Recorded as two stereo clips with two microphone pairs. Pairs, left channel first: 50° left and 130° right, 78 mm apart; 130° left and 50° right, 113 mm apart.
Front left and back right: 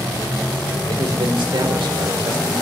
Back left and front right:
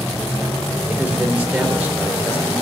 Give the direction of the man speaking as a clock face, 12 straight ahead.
4 o'clock.